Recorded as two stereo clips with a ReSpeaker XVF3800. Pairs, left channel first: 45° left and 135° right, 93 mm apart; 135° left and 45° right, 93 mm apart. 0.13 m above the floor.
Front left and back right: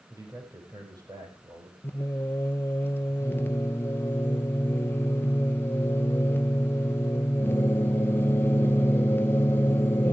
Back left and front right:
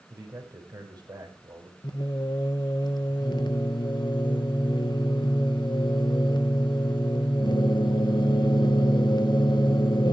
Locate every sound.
0.1 s a man speaking: 90° right, 5.5 m
1.8 s singing: 110° left, 1.0 m